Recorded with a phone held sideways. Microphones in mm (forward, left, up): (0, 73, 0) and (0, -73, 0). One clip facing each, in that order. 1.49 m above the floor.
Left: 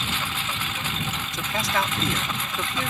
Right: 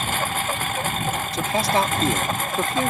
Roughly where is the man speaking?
Right.